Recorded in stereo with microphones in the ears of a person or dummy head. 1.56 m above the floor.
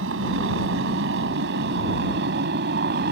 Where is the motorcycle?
70° right (ahead or behind); by 3.1 s 55° right (ahead or behind).